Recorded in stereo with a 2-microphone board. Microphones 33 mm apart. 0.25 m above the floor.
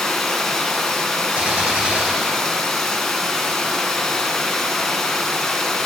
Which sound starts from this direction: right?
A gunshot, at 1.4 s.